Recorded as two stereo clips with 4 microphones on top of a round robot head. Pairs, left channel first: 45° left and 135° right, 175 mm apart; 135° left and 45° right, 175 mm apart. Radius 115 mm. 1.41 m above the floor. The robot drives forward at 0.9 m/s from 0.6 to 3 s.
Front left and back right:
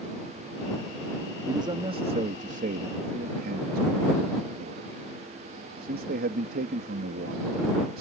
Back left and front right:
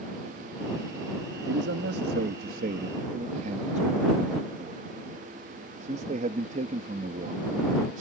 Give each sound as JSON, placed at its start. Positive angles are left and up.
{"t": 1.5, "sound": "a man speaking", "azimuth_deg": -65}